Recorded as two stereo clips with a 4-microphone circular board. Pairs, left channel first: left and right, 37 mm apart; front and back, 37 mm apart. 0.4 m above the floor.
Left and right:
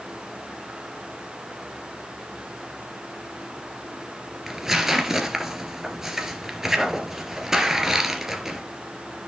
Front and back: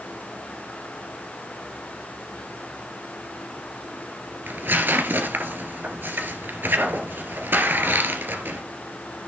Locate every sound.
4.5 s tearing paper: 165° right, 2.5 m